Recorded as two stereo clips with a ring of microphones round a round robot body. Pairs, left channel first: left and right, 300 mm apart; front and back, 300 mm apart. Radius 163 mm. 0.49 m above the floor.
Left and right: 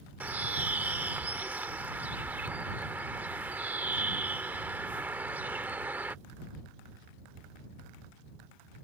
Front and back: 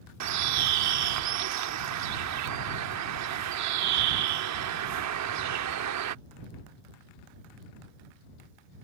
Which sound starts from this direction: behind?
A bird, at 0.2 s.